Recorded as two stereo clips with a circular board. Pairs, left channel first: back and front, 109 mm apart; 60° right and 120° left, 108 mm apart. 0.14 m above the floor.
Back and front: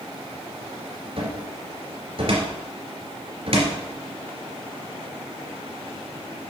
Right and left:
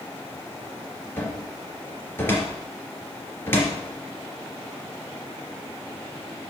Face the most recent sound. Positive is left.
turn(degrees=5)